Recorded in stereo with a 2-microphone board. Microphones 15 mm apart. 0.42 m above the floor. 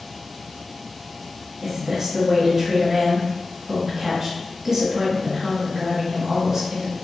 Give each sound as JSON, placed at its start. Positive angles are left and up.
{"t": 1.6, "sound": "a woman speaking", "side_deg": -35, "distance_m": 1.7}